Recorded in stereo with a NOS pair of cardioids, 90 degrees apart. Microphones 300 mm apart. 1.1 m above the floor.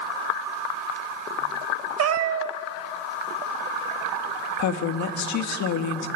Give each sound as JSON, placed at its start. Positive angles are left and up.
{"t": 2.0, "sound": "a cat meowing", "azimuth_deg": -55, "distance_m": 1.3}
{"t": 4.6, "sound": "a woman speaking", "azimuth_deg": 70, "distance_m": 1.7}